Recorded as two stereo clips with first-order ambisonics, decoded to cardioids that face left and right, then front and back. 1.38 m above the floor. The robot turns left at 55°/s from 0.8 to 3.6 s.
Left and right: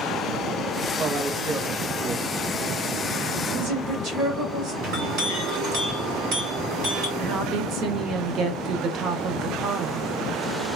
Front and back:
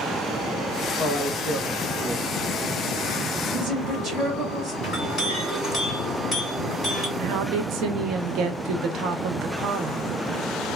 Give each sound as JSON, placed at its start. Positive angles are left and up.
{"t": 1.0, "sound": "a man speaking", "azimuth_deg": -20, "distance_m": 0.8}
{"t": 3.5, "sound": "a woman speaking", "azimuth_deg": -105, "distance_m": 1.3}
{"t": 4.8, "sound": "a clink", "azimuth_deg": -70, "distance_m": 2.5}
{"t": 7.2, "sound": "a woman speaking", "azimuth_deg": -135, "distance_m": 0.7}